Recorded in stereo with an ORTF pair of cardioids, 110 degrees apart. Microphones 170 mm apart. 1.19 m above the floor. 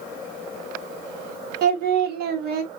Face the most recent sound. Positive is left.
turn(degrees=-70)